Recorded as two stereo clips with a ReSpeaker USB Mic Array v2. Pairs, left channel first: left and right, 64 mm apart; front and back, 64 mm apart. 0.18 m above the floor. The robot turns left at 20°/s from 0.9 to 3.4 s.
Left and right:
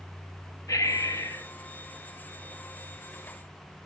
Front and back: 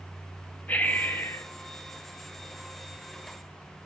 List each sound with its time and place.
0.7 s breathing: 60° left, 0.7 m; by 1.5 s 50° left, 0.7 m